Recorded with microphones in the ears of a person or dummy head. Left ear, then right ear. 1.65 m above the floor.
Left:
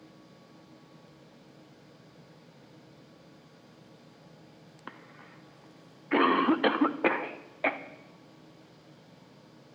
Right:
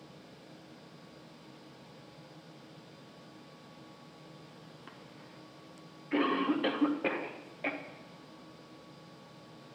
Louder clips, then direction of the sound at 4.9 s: Left 8 dB; 45° left (ahead or behind).